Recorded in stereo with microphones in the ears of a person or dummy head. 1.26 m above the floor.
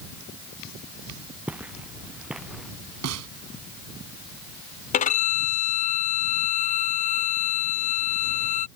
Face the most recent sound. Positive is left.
turn(degrees=30)  # may be behind; listen again after turning